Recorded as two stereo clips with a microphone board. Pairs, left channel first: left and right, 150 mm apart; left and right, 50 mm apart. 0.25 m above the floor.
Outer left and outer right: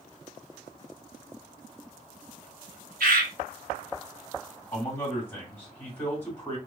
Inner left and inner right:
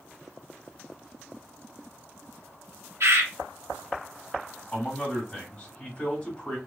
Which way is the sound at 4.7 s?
15° left (ahead or behind).